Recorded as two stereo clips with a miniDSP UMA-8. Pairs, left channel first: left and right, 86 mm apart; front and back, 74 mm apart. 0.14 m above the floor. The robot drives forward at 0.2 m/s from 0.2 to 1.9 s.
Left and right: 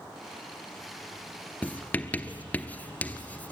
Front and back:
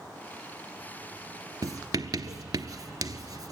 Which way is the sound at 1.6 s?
160° left.